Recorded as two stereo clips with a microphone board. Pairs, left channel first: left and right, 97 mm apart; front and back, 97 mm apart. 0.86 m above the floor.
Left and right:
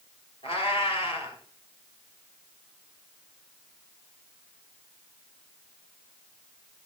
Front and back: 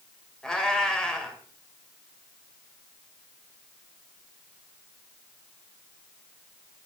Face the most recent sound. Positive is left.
turn(degrees=85)